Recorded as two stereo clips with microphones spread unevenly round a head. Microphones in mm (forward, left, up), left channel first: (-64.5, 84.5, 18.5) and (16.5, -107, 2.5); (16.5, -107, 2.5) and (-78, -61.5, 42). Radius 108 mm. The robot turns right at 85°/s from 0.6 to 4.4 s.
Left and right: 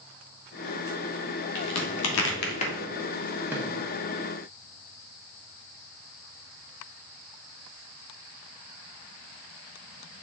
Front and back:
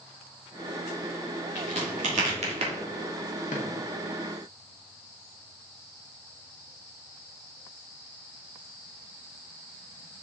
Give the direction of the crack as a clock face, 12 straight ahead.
9 o'clock.